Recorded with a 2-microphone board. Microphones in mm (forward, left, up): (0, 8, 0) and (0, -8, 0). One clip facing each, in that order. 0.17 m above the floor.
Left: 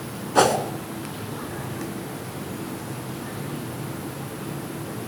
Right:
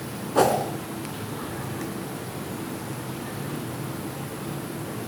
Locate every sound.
0.3 s a whoosh: 45° left (ahead or behind), 1.9 m